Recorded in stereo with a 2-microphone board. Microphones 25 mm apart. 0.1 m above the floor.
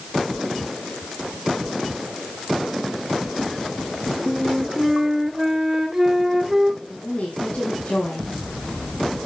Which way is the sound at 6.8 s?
65° left (ahead or behind).